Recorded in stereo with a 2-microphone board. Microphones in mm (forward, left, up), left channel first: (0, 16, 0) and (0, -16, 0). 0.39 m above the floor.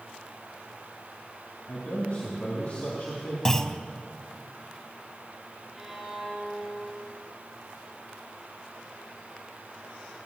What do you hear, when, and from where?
1.7 s a man speaking: 50° left (ahead or behind), 2.5 m
3.5 s a clunk: 15° left (ahead or behind), 0.6 m
5.8 s a violin: 5° right (ahead or behind), 3 m